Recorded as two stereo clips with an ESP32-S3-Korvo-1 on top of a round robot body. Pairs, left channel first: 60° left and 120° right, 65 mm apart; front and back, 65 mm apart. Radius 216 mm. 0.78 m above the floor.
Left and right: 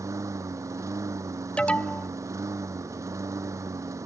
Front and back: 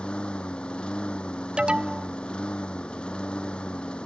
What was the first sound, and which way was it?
A lawn mower, 75° right.